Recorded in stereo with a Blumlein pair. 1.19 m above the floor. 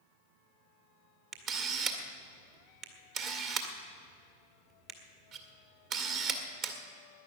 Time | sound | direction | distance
1.3 | a camera shutter | 35° right | 1.7 m